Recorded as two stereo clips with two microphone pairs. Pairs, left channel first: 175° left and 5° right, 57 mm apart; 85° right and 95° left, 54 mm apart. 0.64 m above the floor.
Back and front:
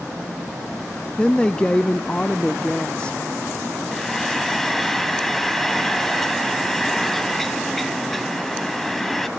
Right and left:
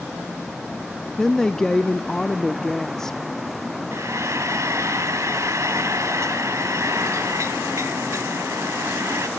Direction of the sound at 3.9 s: 90° left.